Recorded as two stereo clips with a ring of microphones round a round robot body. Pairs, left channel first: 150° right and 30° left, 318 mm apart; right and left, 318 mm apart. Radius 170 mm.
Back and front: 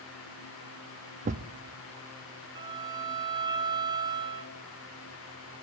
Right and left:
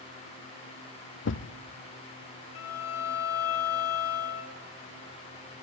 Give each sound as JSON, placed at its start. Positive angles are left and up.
{"t": 1.2, "sound": "a thud", "azimuth_deg": -35, "distance_m": 0.6}
{"t": 2.5, "sound": "a violin", "azimuth_deg": -45, "distance_m": 3.0}